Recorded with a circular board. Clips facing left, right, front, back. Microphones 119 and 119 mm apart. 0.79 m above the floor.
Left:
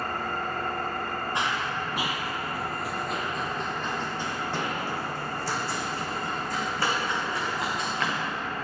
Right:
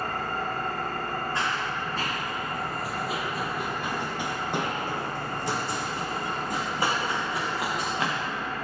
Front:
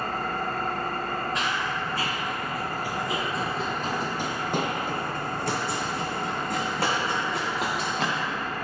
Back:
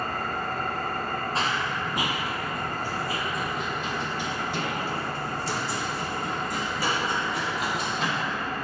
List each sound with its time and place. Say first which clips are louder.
0.0 s an engine running: right 1 dB, front 1 dB; 20° right, 2.5 m
1.4 s running footsteps: even, back 1 dB; 150° left, 1.0 m; by 8.2 s 20° right, 3 m